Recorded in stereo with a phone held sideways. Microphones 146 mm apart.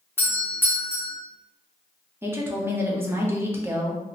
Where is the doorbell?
15° left (ahead or behind), 1.0 m.